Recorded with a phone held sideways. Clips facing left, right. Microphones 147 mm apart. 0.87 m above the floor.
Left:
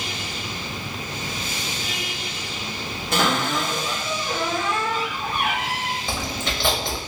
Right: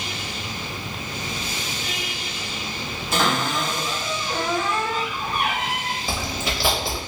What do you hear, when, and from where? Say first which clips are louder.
3.1 s a cupboard door: left 1 dB; 65° left (ahead or behind), 1.5 m
6.1 s chewing: right 1 dB; 5° right (ahead or behind), 0.8 m